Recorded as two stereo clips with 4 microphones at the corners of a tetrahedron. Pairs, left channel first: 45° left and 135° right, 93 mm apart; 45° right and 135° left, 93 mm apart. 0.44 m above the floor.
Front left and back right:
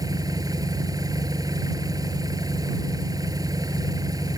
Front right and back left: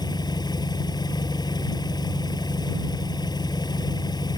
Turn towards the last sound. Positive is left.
turn(degrees=-85)